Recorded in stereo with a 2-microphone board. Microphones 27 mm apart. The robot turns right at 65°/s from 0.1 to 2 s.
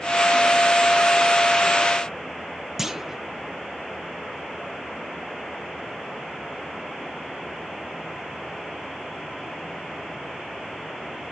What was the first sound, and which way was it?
A clunk, 10° right (ahead or behind).